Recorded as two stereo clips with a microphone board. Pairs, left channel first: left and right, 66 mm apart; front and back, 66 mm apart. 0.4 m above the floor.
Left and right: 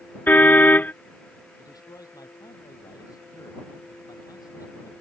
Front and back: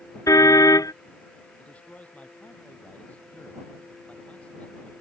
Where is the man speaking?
70° left.